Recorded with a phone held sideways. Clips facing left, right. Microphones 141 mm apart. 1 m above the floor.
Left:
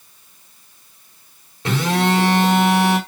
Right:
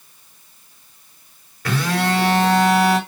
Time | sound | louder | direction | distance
1.6 | a phone buzzing | left 2 dB | 25° left (ahead or behind) | 3.5 m